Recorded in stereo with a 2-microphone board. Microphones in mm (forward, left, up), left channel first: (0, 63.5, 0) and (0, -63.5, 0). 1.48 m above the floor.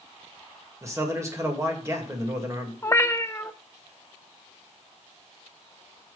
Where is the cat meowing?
20° left (ahead or behind), 0.7 m.